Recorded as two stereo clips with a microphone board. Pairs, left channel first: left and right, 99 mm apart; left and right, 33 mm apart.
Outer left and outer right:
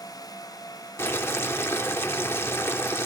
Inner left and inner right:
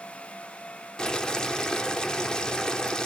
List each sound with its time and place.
1.0 s boiling: 25° left (ahead or behind), 1.0 m